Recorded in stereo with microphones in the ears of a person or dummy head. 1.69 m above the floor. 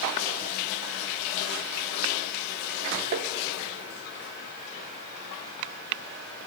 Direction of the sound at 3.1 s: 35° right (ahead or behind).